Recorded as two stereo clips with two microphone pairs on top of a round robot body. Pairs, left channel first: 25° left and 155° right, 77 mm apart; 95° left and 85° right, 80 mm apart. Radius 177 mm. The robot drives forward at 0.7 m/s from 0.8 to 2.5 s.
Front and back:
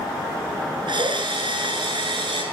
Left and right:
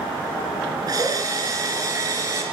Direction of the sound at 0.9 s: 130° right.